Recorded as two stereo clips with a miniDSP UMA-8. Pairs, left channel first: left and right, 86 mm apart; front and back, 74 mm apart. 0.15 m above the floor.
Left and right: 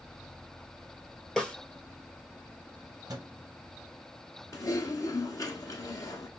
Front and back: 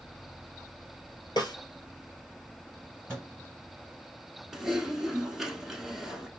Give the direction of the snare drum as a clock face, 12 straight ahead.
12 o'clock.